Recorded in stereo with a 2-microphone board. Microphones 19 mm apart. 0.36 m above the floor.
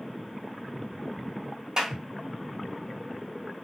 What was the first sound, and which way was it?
A clap, 30° right (ahead or behind).